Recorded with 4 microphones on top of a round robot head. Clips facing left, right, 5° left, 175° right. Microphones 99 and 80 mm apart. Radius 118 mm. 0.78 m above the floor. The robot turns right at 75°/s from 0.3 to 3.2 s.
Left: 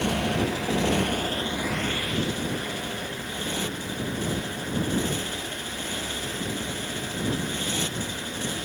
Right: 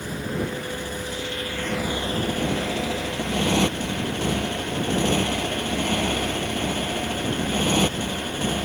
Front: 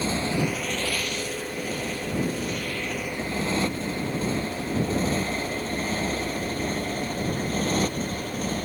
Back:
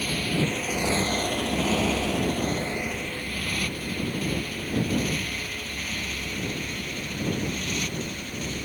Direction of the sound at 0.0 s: 70° left.